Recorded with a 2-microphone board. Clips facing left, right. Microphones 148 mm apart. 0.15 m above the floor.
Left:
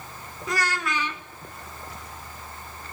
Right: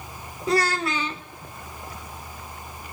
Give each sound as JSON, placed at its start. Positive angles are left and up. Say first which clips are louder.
{"t": 0.5, "sound": "a child speaking", "louder": "right 5 dB", "side_deg": -30, "distance_m": 0.6}